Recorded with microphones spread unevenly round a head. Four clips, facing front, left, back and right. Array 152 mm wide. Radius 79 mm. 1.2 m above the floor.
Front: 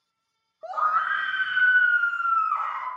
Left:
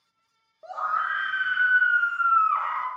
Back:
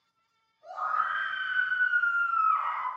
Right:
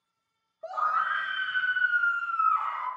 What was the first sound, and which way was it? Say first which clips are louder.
A scream: even, front 6 dB; straight ahead.